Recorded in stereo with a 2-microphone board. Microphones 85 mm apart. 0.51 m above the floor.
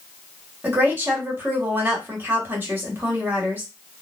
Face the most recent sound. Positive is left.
turn(degrees=-25)  # may be behind; listen again after turning